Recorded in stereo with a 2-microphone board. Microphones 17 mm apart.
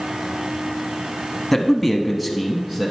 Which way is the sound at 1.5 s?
5° left (ahead or behind).